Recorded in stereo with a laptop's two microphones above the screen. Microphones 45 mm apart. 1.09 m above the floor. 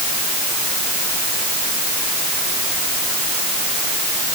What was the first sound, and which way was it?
Only background noise.